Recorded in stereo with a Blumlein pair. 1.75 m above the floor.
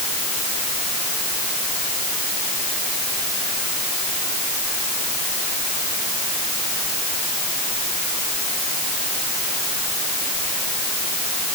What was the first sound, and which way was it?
Only background noise.